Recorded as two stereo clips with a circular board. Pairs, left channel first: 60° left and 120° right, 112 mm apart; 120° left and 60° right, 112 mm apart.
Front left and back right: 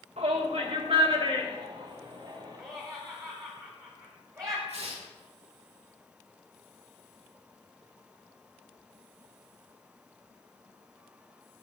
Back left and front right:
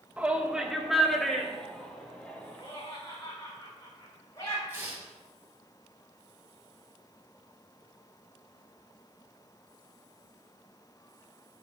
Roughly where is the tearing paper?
Behind right.